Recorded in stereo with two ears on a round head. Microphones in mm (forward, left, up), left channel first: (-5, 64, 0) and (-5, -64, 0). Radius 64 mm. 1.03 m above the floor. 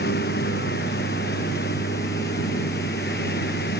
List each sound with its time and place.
0.0 s a lawn mower: 75° left (ahead or behind)